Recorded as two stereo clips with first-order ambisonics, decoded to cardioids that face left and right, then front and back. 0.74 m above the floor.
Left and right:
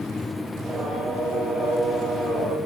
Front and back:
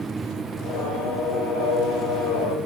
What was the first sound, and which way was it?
Singing, 5° right.